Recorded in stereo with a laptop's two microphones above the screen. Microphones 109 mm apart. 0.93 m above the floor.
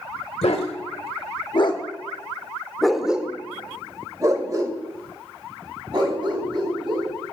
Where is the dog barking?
70° left (ahead or behind), 1.2 m; by 7.1 s 50° right (ahead or behind), 2.5 m.